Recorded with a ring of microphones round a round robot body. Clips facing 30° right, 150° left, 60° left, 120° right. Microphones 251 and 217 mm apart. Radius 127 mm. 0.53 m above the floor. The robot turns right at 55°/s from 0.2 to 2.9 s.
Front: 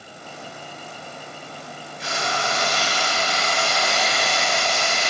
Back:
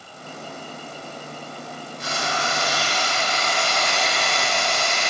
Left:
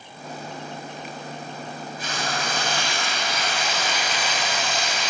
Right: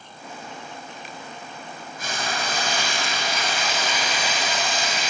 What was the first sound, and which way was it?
Frying, 165° right.